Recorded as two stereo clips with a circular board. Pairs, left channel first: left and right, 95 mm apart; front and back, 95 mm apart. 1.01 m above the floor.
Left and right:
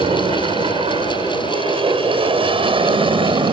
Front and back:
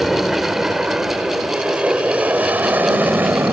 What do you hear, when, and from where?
0.0 s an aircraft: 90° right; by 3.5 s 115° right